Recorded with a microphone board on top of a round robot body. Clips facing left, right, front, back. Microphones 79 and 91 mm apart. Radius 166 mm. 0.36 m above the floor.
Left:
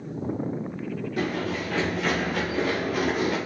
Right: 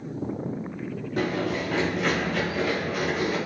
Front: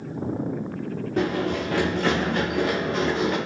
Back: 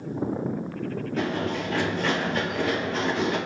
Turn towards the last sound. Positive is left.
turn(degrees=60)